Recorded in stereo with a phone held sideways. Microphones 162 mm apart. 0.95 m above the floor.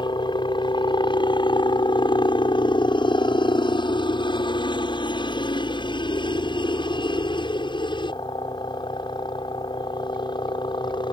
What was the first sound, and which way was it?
A helicopter, 30° left (ahead or behind).